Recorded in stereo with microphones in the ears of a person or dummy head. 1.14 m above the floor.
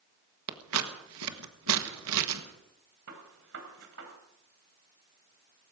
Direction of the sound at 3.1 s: 80° right.